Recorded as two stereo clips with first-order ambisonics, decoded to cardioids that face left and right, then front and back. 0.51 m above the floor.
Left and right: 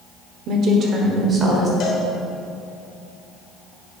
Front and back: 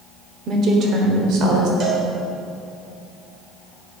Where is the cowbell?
125° left, 1.2 m.